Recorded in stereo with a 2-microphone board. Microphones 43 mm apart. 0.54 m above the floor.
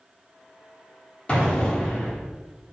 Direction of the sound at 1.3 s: 25° left (ahead or behind).